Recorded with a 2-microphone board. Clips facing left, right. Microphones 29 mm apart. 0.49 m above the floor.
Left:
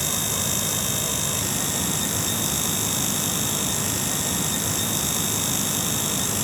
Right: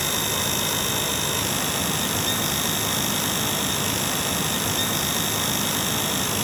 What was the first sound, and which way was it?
Only background noise.